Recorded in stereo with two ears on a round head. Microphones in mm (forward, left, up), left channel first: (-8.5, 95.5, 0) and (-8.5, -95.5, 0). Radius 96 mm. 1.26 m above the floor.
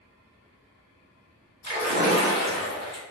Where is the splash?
55° right (ahead or behind), 1.7 m.